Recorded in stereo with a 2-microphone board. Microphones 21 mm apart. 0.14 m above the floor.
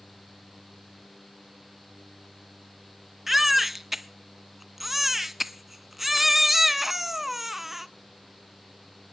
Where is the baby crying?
10° right (ahead or behind), 0.6 m.